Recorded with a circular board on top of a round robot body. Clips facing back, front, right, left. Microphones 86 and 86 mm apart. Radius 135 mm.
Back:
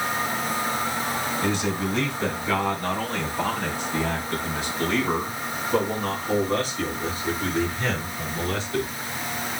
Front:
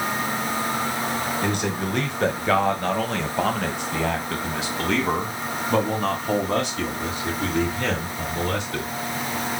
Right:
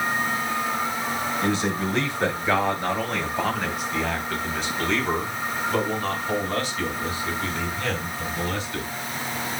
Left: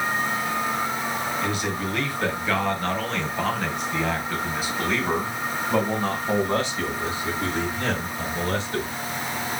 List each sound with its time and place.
1.4 s a man speaking: 35° right, 3 m; by 8.9 s 35° left, 5.5 m